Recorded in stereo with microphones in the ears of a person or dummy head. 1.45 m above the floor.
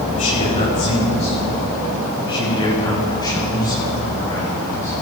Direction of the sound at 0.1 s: 40° left (ahead or behind).